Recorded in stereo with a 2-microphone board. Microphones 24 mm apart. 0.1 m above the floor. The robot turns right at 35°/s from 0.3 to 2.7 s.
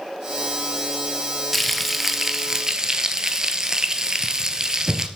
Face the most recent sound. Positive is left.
turn(degrees=-140)